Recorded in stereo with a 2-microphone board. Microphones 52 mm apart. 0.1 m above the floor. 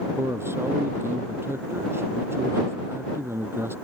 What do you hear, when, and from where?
0.2 s a man speaking: 50° right (ahead or behind)